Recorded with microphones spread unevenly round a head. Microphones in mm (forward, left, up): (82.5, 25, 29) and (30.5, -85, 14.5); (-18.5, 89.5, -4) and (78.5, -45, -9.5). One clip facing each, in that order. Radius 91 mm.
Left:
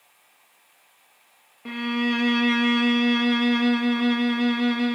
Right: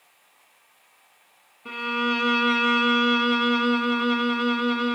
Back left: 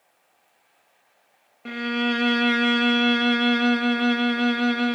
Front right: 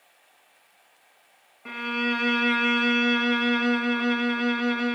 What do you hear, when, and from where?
1.6 s a violin: 85° left, 1.2 m